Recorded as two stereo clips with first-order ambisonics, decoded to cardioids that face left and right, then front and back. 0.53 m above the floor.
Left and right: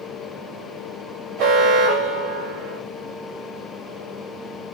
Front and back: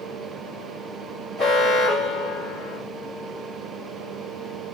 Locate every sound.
1.4 s an alarm: 75° right, 2 m